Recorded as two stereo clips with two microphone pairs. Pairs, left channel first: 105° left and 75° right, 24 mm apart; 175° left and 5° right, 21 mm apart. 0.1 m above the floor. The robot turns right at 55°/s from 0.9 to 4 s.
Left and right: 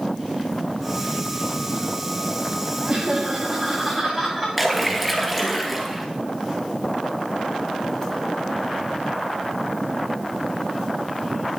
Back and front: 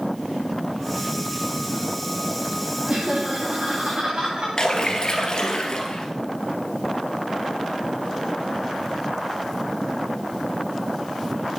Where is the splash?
165° right, 2.5 m.